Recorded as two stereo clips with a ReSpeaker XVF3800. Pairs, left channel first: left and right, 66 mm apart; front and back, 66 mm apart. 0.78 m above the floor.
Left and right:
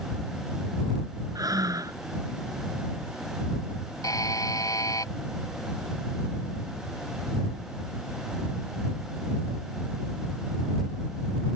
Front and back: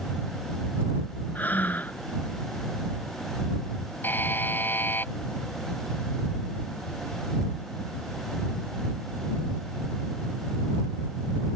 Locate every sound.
1.4 s breathing: 65° right
4.0 s a buzzer: 60° left